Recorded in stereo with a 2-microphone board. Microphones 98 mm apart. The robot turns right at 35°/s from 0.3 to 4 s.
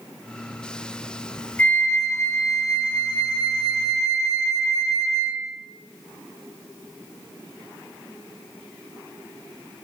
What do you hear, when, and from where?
1.6 s a flute: 30° left, 0.8 m; by 5.5 s 110° left, 0.8 m